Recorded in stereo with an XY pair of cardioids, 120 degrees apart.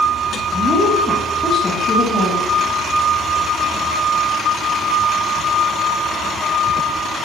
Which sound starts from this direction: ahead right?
A woman speaking, at 0.5 s.